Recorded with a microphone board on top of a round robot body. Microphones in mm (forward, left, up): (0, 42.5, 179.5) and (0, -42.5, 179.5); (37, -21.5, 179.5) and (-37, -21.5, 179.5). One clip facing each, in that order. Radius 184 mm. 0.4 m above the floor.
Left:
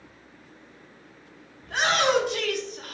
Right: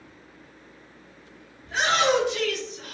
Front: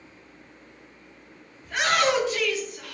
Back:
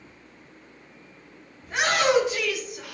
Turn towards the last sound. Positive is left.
turn(degrees=100)